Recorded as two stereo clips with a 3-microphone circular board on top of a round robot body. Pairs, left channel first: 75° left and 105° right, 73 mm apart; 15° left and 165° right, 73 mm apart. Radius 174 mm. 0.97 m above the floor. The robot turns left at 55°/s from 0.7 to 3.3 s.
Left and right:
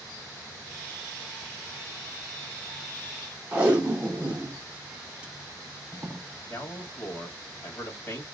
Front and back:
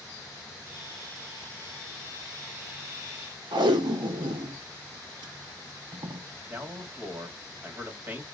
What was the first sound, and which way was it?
Tape being pulled, straight behind.